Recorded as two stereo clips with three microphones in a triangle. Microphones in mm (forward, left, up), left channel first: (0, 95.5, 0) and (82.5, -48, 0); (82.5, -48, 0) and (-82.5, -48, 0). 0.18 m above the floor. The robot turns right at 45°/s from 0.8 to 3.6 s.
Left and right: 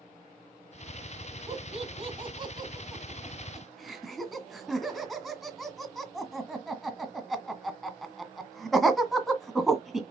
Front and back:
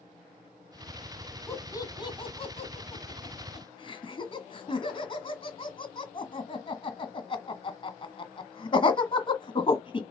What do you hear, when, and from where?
1.5 s laughter: 65° right, 1.8 m; by 10.0 s 30° left, 1.8 m